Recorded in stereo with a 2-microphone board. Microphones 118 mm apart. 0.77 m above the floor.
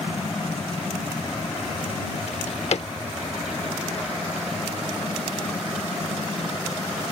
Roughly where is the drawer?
Left.